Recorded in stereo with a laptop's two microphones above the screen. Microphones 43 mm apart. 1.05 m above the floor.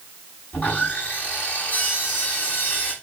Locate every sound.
0.5 s sawing: 35° left (ahead or behind), 4.5 m